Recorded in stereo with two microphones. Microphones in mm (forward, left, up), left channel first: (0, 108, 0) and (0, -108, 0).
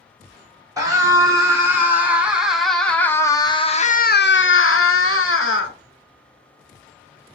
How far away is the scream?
About 2 m.